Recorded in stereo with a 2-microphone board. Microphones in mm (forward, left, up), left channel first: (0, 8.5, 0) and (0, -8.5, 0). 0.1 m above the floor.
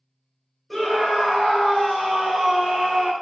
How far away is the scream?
About 1.8 m.